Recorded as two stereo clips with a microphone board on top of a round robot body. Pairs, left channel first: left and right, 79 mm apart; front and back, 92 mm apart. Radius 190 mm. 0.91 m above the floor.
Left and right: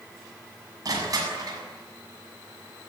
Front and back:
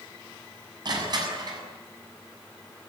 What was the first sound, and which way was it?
Crushing, 135° right.